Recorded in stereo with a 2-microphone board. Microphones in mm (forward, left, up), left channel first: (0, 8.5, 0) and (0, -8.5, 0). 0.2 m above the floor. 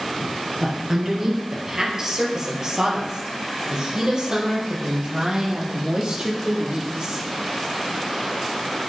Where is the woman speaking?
20° right (ahead or behind), 3 m; by 7.2 s 55° right (ahead or behind), 5.5 m.